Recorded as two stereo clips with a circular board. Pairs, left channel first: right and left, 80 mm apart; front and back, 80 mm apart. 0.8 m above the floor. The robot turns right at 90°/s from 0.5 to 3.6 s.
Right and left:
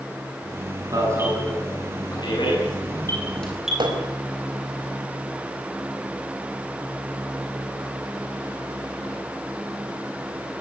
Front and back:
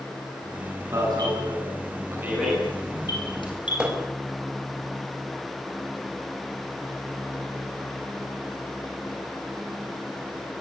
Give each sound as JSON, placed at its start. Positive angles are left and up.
{"t": 0.9, "sound": "an alarm", "azimuth_deg": 125, "distance_m": 9.5}
{"t": 3.8, "sound": "hammering", "azimuth_deg": 100, "distance_m": 4.5}